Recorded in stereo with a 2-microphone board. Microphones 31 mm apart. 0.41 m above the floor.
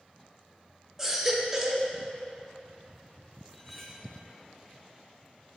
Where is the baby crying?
10° right (ahead or behind), 0.6 m.